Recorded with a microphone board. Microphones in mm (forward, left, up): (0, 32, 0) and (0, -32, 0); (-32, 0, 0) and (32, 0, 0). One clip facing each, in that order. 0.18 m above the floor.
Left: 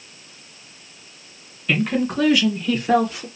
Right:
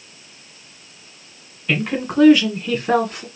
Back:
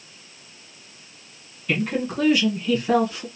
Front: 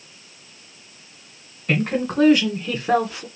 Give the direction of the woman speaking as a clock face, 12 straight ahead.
1 o'clock.